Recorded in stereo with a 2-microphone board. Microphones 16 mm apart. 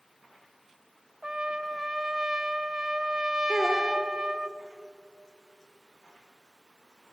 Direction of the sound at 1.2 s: 50° right (ahead or behind).